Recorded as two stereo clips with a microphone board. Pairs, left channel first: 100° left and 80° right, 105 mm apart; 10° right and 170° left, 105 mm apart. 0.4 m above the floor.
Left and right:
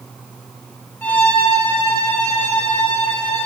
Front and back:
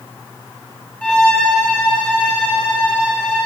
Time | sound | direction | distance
1.0 | a violin | 50° left | 0.9 m